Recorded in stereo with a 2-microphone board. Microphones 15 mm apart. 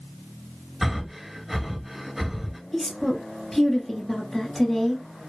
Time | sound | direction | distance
0.8 | breathing | 15° right (ahead or behind) | 0.7 m
2.7 | a woman speaking | 15° left (ahead or behind) | 1.4 m